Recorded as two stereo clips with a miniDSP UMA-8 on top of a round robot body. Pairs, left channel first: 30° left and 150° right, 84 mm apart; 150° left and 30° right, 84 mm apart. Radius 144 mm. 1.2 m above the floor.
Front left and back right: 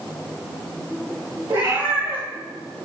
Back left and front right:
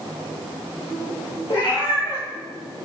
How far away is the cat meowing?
About 3 m.